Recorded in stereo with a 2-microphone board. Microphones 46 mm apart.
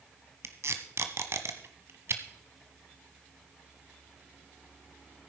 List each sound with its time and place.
0.4 s tape being pulled: 70° right (ahead or behind), 1.1 m